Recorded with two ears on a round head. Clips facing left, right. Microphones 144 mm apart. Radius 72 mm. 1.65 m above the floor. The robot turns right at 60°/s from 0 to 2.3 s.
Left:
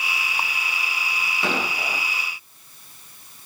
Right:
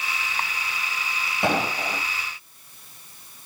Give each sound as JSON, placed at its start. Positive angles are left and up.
{"t": 1.4, "sound": "an explosion", "azimuth_deg": -20, "distance_m": 2.0}